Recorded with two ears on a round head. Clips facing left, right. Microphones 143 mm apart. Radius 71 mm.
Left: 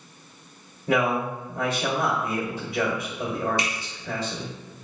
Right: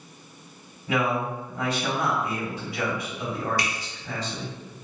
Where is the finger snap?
20° left (ahead or behind), 0.5 m.